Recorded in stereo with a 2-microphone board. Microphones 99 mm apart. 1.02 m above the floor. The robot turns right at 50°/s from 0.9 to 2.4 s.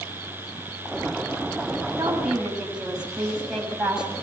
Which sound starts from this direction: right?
A woman speaking, at 2.0 s.